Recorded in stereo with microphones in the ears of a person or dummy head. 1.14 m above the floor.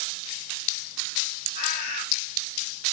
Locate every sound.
1.6 s a bird: 40° left (ahead or behind), 2 m